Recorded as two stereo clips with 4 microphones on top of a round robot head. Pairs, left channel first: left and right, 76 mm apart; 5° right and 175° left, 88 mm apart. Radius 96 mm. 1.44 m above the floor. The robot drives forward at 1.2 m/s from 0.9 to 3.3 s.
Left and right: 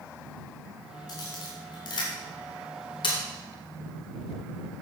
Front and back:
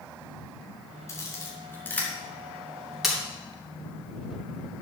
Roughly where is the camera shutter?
Ahead left.